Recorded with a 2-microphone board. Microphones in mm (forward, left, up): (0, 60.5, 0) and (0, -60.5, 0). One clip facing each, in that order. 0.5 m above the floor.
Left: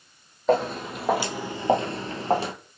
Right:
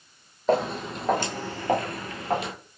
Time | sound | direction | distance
0.5 | footsteps | centre (ahead or behind) | 1.1 m